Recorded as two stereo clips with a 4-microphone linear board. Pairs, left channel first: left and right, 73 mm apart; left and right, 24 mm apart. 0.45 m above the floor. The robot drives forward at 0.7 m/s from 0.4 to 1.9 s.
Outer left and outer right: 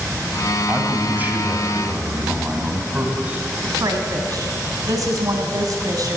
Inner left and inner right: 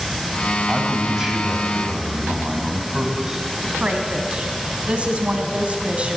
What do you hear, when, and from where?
0.7 s a man speaking: 30° right (ahead or behind), 3 m; by 3.5 s 20° right (ahead or behind), 4 m
3.6 s a woman speaking: 60° right (ahead or behind), 3 m